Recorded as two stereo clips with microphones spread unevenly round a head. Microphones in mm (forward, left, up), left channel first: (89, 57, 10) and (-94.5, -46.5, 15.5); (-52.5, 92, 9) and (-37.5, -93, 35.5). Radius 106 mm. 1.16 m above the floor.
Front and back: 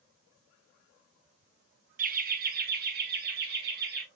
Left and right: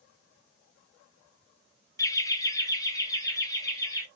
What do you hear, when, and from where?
2.0 s laughter: 160° left, 0.9 m; by 4.0 s 165° left, 2.5 m